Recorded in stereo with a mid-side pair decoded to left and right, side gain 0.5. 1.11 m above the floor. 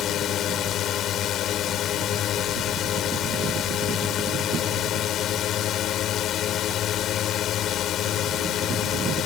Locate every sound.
0.0 s a drone: 60° left